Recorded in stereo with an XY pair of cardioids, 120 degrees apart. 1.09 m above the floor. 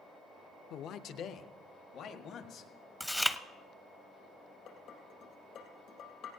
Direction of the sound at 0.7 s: 65° left.